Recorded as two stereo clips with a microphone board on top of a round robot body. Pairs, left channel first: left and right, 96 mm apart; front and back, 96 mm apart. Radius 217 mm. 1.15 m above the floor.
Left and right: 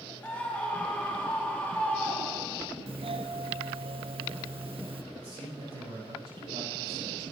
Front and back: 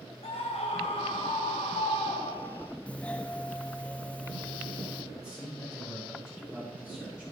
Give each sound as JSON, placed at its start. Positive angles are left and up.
{"t": 0.2, "sound": "a scream", "azimuth_deg": 15, "distance_m": 2.5}
{"t": 2.9, "sound": "a doorbell", "azimuth_deg": -75, "distance_m": 1.1}
{"t": 5.1, "sound": "a man speaking", "azimuth_deg": -90, "distance_m": 6.5}